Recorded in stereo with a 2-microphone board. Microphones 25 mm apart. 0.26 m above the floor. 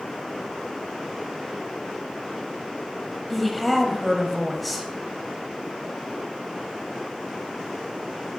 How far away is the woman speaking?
About 1.1 m.